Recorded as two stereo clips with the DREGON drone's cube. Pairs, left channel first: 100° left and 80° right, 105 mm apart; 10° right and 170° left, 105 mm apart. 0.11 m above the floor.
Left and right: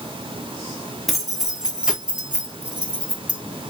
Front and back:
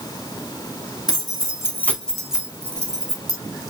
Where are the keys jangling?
10° left, 1.0 m; by 3.4 s 150° right, 1.1 m.